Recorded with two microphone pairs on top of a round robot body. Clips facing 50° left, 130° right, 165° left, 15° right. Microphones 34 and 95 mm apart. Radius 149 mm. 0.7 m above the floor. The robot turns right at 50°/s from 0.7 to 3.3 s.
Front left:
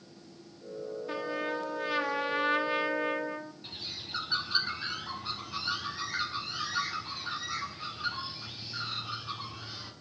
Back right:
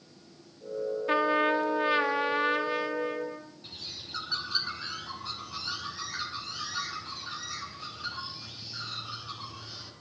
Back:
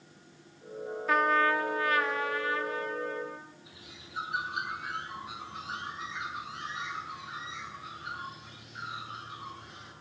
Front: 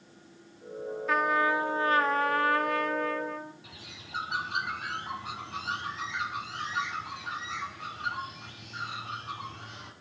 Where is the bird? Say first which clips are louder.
Front left 1 dB, front 2 dB; 25° right, 5.5 m.